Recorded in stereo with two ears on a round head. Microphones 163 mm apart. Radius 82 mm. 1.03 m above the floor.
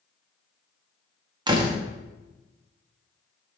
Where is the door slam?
25° right (ahead or behind), 1.3 m.